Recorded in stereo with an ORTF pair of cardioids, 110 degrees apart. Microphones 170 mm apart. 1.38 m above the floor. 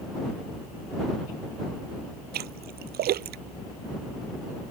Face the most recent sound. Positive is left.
turn(degrees=-65)